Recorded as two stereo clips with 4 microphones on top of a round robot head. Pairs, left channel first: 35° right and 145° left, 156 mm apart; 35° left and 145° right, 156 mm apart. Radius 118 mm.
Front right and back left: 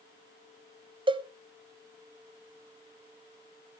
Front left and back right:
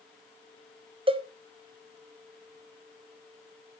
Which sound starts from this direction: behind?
A cowbell, at 1.1 s.